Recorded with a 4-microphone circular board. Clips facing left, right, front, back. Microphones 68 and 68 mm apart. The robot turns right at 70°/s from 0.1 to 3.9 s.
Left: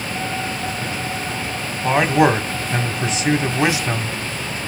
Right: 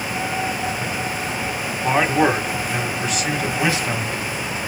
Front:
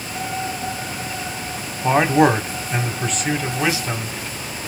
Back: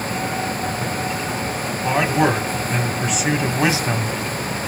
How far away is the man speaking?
About 1.4 m.